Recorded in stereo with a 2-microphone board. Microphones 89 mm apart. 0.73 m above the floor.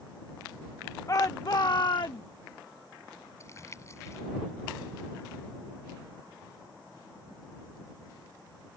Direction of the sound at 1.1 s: 40° left (ahead or behind).